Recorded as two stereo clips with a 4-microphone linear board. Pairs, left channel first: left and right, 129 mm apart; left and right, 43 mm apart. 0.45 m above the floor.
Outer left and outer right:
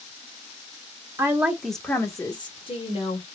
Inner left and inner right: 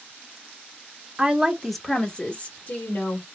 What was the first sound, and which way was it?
A woman speaking, 25° right (ahead or behind).